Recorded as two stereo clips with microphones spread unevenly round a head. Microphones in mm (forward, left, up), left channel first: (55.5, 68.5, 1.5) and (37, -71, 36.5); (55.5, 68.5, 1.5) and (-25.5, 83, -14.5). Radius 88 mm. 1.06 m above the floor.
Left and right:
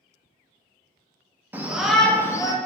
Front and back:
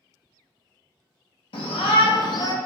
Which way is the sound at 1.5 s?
15° right.